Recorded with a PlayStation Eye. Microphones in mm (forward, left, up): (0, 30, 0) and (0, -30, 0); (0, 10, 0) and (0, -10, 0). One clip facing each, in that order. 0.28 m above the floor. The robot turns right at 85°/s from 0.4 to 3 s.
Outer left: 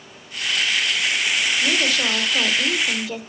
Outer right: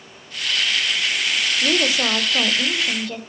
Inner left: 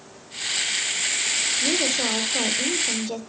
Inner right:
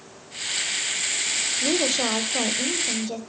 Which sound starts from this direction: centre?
A woman speaking, at 1.6 s.